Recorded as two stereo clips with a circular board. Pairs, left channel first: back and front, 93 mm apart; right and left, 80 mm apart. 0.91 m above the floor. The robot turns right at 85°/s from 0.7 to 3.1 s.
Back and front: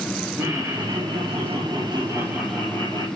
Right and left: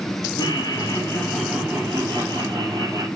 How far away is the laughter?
About 3.5 m.